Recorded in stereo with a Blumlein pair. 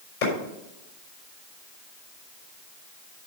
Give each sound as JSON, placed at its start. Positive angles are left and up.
{"t": 0.2, "sound": "a clap", "azimuth_deg": 55, "distance_m": 4.0}